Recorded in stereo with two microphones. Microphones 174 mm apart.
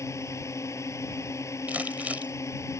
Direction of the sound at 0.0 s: 15° left (ahead or behind).